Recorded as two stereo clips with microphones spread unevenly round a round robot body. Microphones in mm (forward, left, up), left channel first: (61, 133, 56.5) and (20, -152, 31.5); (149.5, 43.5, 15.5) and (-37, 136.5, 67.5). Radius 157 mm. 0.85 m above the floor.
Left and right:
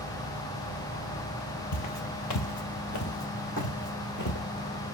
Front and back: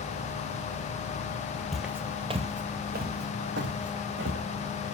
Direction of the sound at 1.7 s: 75° left.